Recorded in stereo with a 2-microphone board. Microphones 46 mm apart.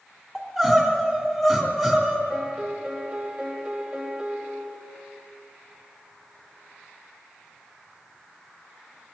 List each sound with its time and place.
0.3 s crying: centre (ahead or behind), 2.5 m
2.3 s a piano: 20° right (ahead or behind), 1.6 m